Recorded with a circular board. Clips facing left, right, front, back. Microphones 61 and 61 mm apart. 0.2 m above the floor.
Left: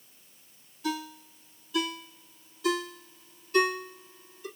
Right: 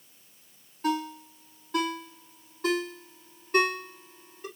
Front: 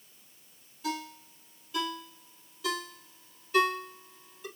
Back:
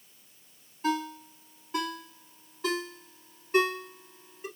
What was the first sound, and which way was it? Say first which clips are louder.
A ringtone: right 5 dB, back 6 dB; 130° right.